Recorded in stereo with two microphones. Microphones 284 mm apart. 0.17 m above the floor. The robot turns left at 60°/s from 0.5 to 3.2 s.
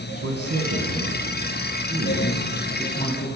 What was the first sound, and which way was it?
A man speaking, 50° right.